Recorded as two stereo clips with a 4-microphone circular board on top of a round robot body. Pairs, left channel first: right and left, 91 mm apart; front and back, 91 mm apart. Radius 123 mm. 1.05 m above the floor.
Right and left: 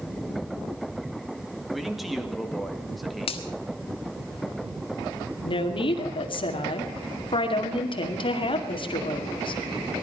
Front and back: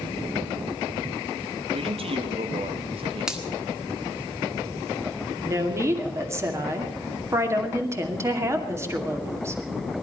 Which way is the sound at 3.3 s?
95° right.